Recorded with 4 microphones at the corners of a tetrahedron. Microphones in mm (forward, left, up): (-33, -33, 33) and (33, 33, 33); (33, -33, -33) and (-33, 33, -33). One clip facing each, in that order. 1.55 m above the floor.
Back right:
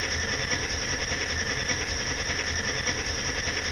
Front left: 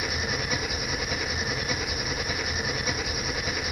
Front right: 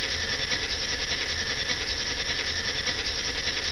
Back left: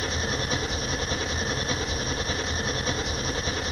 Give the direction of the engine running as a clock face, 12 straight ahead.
8 o'clock.